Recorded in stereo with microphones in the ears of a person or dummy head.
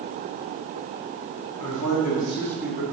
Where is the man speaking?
75° left (ahead or behind), 1.5 m; by 2.8 s 20° right (ahead or behind), 1.1 m.